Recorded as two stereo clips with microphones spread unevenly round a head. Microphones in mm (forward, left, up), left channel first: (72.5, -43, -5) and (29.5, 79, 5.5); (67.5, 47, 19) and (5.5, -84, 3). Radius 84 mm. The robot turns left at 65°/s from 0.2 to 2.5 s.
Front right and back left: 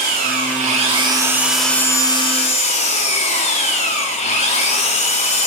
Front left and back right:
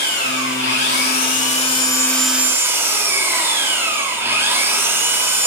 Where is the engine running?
110° left, 3.5 m; by 5.5 s 40° right, 3.5 m.